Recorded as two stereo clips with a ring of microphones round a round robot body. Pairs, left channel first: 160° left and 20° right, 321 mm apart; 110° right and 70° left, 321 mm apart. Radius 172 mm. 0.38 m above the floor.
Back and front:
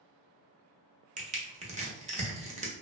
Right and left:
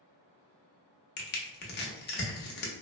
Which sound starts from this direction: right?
Crushing, at 1.2 s.